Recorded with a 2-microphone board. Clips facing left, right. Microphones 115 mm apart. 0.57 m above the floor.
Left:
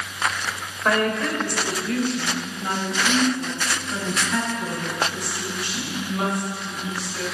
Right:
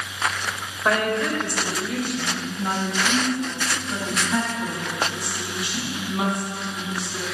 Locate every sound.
0.8 s a woman speaking: 5° right (ahead or behind), 2.5 m; by 7.2 s 20° right (ahead or behind), 5.5 m